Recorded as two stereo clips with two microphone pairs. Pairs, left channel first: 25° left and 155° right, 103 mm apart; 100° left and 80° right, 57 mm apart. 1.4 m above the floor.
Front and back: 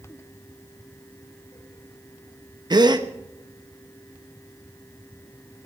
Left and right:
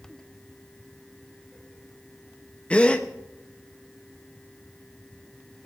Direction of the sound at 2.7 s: 165° left.